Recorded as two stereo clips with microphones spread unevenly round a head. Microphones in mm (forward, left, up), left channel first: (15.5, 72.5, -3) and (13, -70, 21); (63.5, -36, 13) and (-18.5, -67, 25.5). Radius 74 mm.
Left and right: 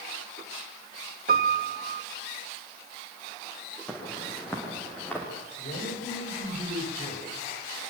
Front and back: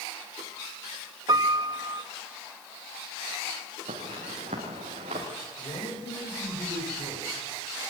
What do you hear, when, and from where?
1.3 s a piano: 125° right, 1.7 m
3.9 s footsteps: 175° left, 7.5 m; by 5.3 s 170° left, 6.5 m
5.6 s a man speaking: 55° left, 8 m